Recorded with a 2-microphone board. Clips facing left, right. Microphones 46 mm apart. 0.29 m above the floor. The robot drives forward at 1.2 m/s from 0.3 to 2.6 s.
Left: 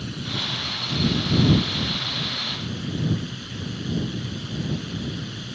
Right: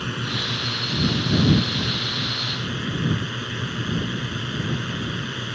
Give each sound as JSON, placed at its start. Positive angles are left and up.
{"t": 0.0, "sound": "a drone", "side_deg": -50}